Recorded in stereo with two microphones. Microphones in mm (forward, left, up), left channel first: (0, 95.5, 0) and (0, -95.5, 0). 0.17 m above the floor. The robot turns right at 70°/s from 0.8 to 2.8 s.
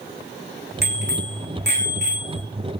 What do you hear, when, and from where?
0.8 s a bicycle bell: 120° right, 7.5 m; by 2.4 s 10° right, 7.5 m